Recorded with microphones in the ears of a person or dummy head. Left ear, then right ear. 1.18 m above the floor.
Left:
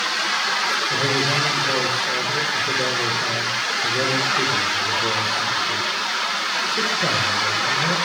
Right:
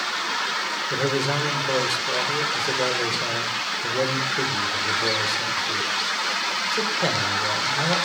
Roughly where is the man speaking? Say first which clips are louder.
Left 3 dB; right.